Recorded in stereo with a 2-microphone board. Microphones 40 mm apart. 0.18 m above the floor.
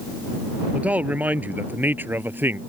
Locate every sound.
0.7 s a man speaking: 35° right (ahead or behind); by 2.6 s 55° right (ahead or behind)